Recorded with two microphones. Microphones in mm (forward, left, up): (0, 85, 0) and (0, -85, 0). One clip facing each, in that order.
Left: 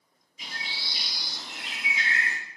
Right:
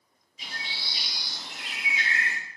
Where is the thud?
No thud in this recording.